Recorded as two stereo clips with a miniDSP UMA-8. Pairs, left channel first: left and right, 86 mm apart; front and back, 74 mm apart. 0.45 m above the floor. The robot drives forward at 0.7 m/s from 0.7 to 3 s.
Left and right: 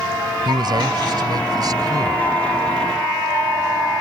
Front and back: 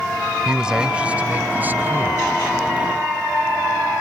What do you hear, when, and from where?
0.5 s a man speaking: 100° right; by 2.4 s 125° right